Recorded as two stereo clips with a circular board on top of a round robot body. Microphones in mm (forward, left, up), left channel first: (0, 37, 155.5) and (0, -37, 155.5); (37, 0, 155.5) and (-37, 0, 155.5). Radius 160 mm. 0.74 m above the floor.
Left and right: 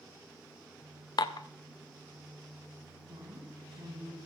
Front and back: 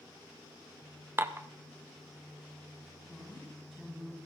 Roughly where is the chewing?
No chewing in this recording.